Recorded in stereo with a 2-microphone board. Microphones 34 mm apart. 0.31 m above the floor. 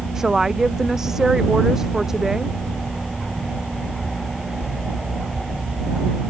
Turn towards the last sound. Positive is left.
turn(degrees=-10)  # may be behind; listen again after turning